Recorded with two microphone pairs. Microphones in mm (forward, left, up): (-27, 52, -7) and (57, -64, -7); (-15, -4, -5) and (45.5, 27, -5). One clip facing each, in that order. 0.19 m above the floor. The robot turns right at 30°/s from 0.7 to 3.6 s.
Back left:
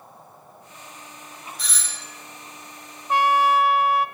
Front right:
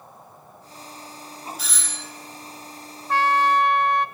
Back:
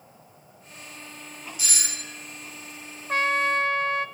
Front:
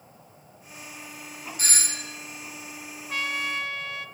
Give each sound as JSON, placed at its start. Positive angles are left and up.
{"t": 1.6, "sound": "a doorbell", "azimuth_deg": 30, "distance_m": 2.5}
{"t": 3.1, "sound": "a trumpet", "azimuth_deg": -170, "distance_m": 0.6}